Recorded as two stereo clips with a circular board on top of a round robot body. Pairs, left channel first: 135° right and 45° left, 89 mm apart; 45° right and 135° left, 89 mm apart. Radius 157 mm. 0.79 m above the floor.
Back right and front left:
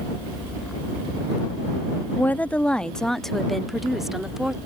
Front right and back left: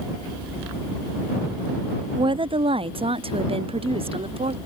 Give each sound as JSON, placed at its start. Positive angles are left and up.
{"t": 2.1, "sound": "a woman speaking", "azimuth_deg": 155}